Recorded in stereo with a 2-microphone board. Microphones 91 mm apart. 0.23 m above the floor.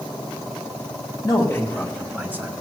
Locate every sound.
1.2 s a man speaking: 40° left (ahead or behind), 1.9 m; by 2.5 s 25° right (ahead or behind), 1.6 m